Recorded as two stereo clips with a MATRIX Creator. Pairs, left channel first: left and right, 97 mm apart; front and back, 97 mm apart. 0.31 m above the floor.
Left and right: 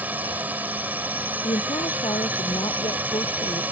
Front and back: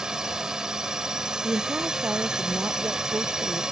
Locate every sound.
0.0 s a drone: 110° right
1.4 s a woman speaking: 110° left